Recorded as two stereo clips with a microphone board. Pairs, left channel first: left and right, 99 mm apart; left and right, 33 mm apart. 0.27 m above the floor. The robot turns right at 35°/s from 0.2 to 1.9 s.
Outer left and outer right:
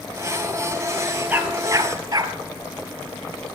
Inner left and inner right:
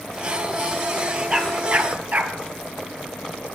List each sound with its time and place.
1.3 s a dog barking: 20° right (ahead or behind), 2 m; by 2.4 s 40° right (ahead or behind), 2 m